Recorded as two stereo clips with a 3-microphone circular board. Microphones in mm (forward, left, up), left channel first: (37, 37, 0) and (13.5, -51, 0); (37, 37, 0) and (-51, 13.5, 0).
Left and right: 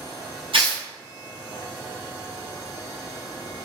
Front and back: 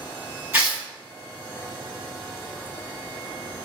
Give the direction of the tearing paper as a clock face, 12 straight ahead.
3 o'clock.